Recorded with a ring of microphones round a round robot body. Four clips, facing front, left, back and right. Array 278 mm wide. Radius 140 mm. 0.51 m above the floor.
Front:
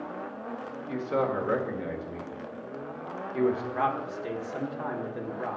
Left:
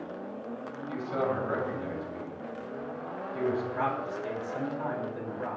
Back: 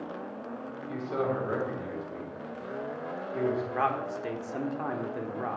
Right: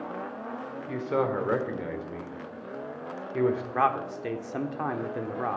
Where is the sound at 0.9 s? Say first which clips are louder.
Right 3 dB, front 2 dB; 65° right, 1.8 m.